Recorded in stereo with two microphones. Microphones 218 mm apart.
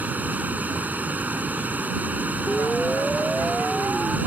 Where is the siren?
5° left (ahead or behind); by 4.2 s 5° right (ahead or behind).